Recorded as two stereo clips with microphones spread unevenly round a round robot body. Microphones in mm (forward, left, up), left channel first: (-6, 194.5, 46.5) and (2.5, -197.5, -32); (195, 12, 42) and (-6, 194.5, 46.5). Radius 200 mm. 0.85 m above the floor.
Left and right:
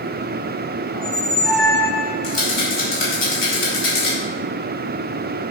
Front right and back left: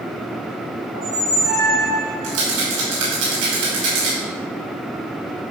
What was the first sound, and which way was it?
A squeak, 150° left.